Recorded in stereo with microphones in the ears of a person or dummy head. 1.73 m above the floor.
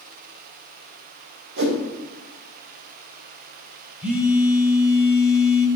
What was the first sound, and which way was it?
A whoosh, 70° right (ahead or behind).